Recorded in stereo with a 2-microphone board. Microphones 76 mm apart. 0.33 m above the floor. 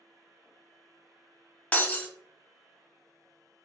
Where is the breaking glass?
20° left (ahead or behind), 0.6 m.